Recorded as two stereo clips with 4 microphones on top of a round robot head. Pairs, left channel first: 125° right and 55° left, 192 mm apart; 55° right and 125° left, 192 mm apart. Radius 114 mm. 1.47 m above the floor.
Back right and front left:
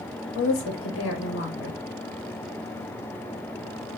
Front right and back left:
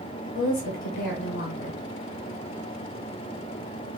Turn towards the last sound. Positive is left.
turn(degrees=-85)